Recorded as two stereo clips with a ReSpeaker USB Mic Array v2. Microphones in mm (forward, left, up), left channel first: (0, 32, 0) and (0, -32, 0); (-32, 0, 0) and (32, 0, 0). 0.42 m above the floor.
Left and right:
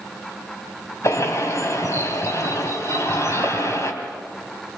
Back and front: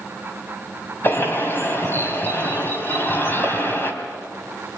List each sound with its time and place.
1.0 s a bird: 130° left, 3.5 m